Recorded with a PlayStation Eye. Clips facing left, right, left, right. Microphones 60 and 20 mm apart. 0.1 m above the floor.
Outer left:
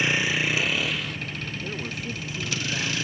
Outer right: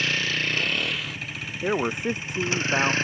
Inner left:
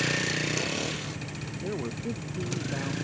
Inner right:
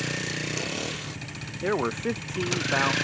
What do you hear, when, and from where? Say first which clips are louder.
0.0 s a vehicle: outer left 2 dB, inner left 3 dB; 15° left (ahead or behind); by 3.0 s 35° right (ahead or behind)
1.6 s a man speaking: outer right 13 dB, inner right 8 dB; 60° right (ahead or behind)